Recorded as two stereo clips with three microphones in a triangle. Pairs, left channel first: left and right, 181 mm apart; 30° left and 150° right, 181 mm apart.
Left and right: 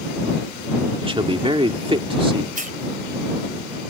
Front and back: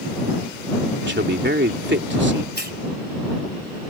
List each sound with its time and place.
1.0 s a man speaking: 150° right
2.5 s a hiss: 130° right